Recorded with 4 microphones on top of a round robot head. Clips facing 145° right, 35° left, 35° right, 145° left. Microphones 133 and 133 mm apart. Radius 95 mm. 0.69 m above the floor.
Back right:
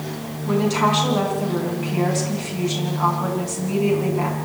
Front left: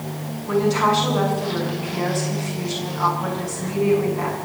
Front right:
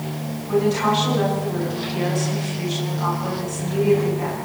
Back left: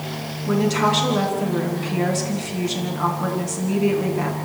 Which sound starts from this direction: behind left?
A woman speaking, at 0.5 s.